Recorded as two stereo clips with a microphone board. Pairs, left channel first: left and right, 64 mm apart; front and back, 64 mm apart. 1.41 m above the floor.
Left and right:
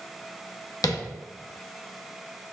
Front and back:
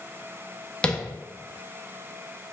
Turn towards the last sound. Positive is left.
turn(degrees=75)